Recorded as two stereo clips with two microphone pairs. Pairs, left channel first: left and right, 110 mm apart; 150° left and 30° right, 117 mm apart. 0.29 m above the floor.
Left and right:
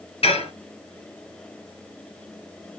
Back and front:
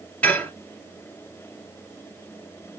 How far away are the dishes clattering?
About 3 m.